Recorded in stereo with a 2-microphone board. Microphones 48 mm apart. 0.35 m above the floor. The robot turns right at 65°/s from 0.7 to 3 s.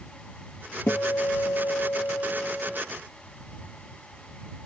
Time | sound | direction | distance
0.9 | a guitar | 40° left | ?